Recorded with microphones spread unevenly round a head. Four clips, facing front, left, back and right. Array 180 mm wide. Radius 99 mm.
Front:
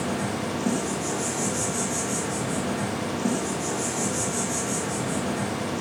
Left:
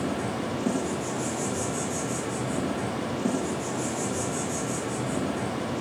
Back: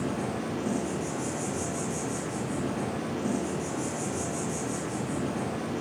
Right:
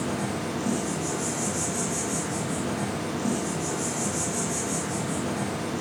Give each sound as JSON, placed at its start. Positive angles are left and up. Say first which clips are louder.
{"t": 0.0, "sound": "an insect", "louder": "even, front 3 dB", "azimuth_deg": 0, "distance_m": 2.0}